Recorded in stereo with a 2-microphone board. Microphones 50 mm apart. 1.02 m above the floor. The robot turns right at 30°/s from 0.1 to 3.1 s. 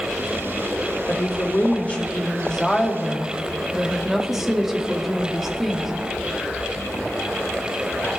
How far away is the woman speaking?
About 2.0 m.